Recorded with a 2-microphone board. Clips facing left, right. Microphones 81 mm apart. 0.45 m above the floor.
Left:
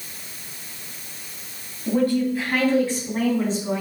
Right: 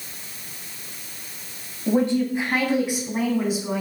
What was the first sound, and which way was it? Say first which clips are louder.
A woman speaking: even; 25° right (ahead or behind).